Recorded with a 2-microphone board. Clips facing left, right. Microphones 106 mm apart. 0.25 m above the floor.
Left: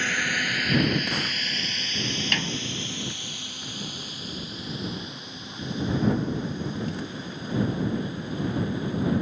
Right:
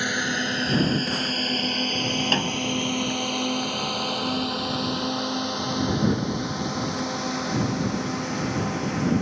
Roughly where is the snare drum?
Right.